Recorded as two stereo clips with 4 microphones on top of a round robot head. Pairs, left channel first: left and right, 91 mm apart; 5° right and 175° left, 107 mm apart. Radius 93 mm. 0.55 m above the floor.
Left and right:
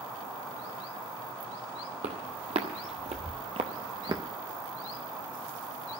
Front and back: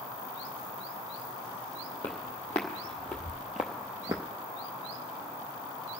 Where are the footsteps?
80° right, 1.6 m; by 4.2 s 120° right, 0.7 m.